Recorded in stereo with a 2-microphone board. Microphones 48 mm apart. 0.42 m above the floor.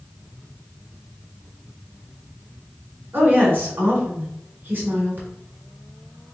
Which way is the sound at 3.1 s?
45° right (ahead or behind).